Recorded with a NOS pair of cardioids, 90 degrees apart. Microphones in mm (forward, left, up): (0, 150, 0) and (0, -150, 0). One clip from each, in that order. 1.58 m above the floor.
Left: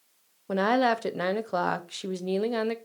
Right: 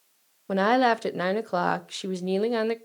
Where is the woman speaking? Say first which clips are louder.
Right 2 dB; 10° right, 0.6 m.